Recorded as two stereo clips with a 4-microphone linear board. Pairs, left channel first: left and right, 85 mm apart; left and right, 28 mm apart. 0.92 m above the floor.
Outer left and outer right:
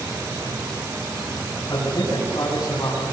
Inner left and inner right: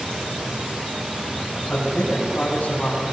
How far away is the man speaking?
About 8 m.